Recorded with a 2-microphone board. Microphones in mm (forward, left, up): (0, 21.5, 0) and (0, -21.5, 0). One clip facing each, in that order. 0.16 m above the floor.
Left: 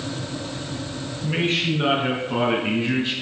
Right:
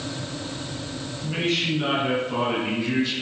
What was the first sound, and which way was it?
A man speaking, 25° left (ahead or behind).